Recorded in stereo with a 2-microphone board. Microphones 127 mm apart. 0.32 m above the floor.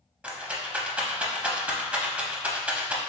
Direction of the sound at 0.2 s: 10° right (ahead or behind).